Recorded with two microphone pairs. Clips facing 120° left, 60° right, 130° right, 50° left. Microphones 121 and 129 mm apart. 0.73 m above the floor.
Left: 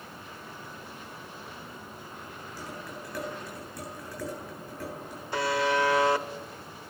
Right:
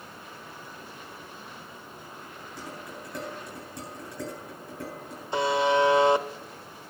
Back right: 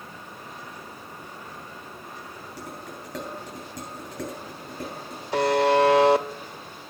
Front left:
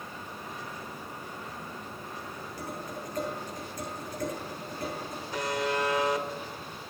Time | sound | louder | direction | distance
2.6 | dishes clattering | even, front left 1 dB | 125° right | 8.5 m
5.3 | a buzzer | right 3 dB, back right 11 dB | 125° right | 0.7 m